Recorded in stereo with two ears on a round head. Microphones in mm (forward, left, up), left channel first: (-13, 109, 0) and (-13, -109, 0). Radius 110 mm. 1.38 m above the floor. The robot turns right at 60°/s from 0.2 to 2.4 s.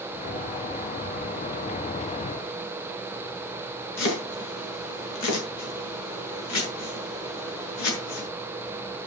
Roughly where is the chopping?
Left.